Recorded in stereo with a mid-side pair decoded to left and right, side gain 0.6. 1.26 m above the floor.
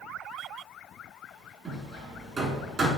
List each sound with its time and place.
1.6 s hammering: 30° right, 2.5 m